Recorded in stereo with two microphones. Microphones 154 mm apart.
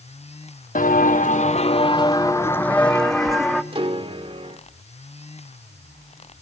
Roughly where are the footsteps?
Left.